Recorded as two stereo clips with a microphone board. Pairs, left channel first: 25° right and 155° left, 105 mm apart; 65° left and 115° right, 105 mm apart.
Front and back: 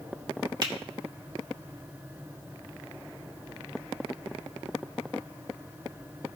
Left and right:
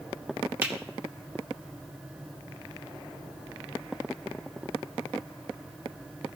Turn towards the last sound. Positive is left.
turn(degrees=180)